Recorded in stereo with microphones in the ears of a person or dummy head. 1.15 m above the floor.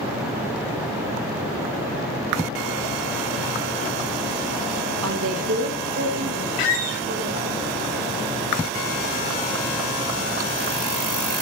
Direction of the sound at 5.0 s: 85° right.